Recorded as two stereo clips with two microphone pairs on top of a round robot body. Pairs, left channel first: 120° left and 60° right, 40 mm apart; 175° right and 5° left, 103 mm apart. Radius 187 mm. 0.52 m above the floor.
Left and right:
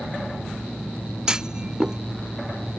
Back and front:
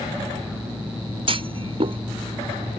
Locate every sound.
1.3 s a clunk: 10° left